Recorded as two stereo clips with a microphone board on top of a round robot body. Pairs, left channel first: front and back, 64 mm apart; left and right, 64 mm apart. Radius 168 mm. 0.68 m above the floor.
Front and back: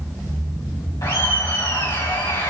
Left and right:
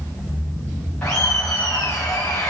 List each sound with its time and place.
1.0 s laughter: 20° left, 3 m